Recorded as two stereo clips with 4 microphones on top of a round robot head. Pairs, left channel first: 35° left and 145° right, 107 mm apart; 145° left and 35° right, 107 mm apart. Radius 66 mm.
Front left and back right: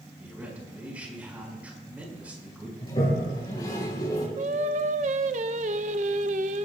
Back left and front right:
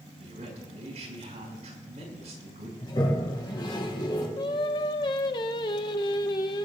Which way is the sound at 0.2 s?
65° right.